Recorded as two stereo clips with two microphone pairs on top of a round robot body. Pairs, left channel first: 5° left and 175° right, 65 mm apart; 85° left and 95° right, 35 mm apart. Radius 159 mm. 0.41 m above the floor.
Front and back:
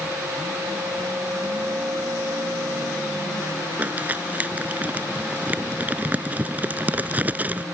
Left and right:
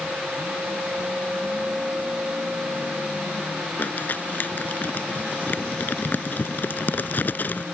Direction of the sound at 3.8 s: 120° left.